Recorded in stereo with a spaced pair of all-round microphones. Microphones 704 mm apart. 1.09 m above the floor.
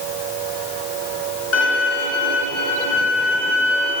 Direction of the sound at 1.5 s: 80° left.